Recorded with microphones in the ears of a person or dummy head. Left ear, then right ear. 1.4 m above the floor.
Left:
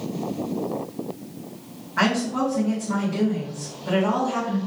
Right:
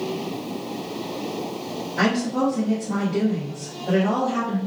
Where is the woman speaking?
45° left (ahead or behind), 1.8 m.